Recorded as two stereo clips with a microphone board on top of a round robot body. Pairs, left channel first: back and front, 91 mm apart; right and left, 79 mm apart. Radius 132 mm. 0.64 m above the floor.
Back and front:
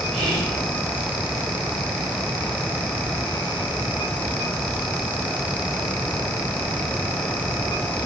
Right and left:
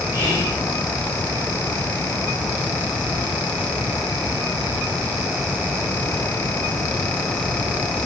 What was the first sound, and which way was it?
Whispering, 40° right.